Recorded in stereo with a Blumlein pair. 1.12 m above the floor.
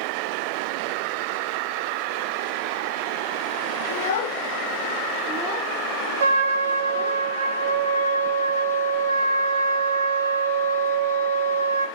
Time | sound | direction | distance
3.9 | a child speaking | 60° left | 0.7 m
6.2 | a trumpet | 65° right | 0.5 m